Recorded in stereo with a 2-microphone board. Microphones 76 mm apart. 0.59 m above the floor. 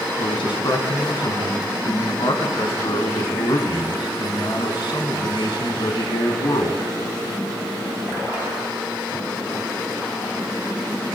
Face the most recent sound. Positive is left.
turn(degrees=65)  # may be behind; listen again after turning